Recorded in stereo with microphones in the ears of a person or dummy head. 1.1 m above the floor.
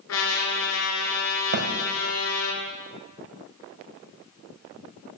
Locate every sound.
0.1 s a trumpet: 75° left (ahead or behind), 3 m
1.5 s a thud: 55° right (ahead or behind), 1.4 m